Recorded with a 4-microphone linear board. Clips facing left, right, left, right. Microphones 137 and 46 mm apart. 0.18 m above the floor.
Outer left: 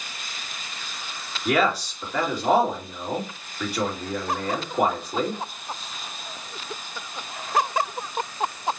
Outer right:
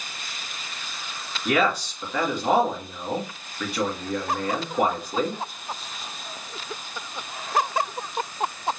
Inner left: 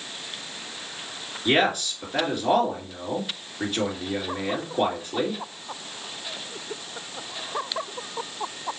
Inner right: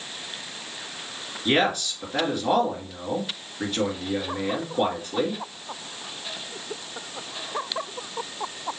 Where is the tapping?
I don't hear tapping.